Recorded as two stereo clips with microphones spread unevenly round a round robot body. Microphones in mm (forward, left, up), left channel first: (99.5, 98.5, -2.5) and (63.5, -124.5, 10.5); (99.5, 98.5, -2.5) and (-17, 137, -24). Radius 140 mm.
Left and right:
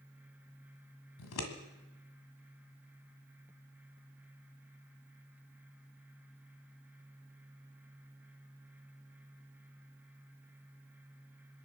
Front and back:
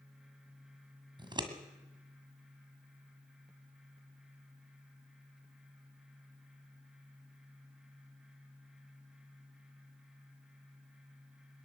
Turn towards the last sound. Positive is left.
turn(degrees=110)